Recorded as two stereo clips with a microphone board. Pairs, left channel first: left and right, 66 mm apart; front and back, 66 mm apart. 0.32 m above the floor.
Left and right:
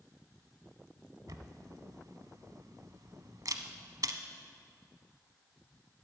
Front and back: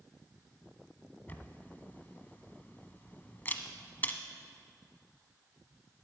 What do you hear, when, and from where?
1.3 s a camera shutter: 65° right, 0.9 m